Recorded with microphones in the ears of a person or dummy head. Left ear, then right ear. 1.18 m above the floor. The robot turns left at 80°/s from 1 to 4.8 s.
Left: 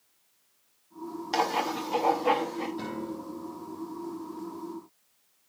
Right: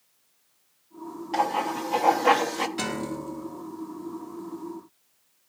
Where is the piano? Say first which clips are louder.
Right 5 dB; 60° right, 1.0 m; by 3.6 s 130° right, 1.0 m.